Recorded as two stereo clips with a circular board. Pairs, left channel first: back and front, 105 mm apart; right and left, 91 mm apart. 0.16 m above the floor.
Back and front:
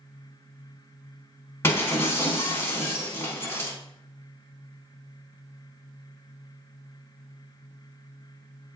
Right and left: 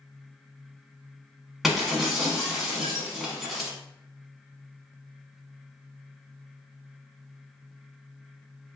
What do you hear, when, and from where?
1.6 s breaking glass: 175° left, 0.7 m